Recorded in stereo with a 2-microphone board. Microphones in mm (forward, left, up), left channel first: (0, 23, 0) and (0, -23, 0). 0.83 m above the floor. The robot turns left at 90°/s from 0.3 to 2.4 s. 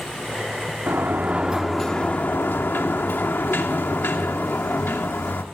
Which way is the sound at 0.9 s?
105° right.